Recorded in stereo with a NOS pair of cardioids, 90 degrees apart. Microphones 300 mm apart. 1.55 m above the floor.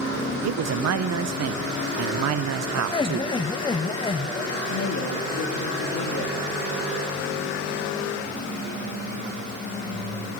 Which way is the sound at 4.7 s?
55° left.